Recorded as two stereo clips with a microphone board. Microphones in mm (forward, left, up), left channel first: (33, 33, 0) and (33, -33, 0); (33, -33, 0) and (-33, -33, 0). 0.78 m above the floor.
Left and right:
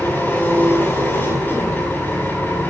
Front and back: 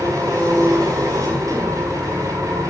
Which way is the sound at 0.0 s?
150° left.